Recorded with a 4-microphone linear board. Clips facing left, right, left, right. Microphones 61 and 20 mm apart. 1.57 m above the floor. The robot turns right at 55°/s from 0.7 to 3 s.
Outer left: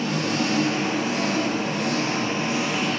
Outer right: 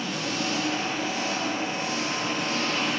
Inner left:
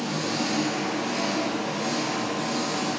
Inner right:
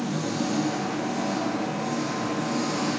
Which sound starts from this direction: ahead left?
An engine running, at 0.0 s.